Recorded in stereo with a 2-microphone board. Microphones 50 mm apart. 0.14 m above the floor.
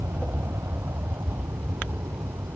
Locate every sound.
0.0 s an aircraft: 70° right (ahead or behind); by 2.6 s 75° right (ahead or behind)